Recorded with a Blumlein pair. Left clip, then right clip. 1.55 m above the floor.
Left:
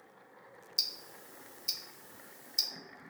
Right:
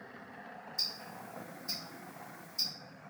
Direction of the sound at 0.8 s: 35° left.